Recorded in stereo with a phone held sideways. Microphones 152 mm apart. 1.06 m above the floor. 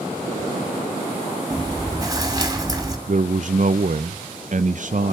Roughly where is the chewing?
Right.